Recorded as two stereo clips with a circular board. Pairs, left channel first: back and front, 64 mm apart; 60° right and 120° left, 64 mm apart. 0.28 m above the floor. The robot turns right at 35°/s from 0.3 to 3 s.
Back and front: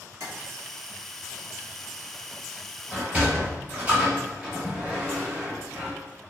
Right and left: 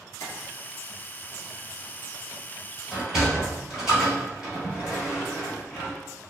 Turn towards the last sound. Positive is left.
turn(degrees=55)